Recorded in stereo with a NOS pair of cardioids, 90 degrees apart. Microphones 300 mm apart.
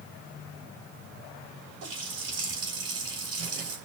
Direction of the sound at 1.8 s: 55° right.